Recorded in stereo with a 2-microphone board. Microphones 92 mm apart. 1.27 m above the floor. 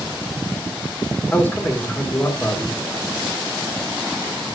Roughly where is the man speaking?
Left.